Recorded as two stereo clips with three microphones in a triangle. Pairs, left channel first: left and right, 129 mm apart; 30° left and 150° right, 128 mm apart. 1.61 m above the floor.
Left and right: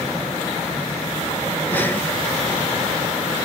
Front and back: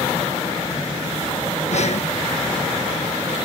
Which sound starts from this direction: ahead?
Breathing, at 1.7 s.